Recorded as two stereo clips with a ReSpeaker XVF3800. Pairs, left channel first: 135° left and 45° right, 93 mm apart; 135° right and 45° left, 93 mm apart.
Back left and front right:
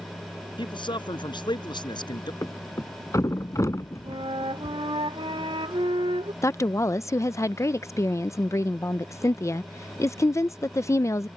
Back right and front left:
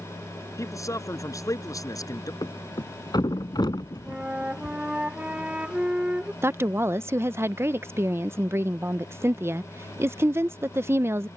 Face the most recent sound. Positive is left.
turn(degrees=95)